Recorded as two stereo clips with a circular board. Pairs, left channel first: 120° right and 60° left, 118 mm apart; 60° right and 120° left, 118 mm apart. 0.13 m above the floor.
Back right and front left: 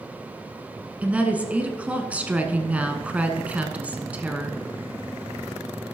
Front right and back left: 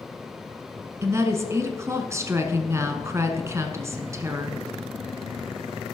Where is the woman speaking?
120° left, 1.2 m.